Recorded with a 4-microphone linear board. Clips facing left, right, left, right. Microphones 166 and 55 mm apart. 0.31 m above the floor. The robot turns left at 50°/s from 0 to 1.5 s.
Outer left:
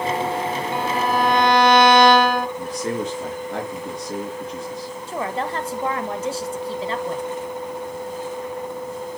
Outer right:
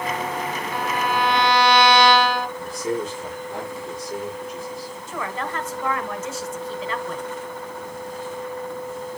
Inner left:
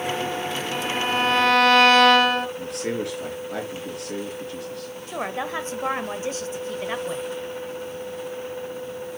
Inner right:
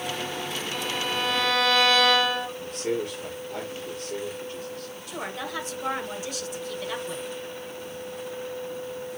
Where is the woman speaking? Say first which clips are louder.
Outer left 4 dB, inner left 5 dB; 30° left (ahead or behind), 1.0 m.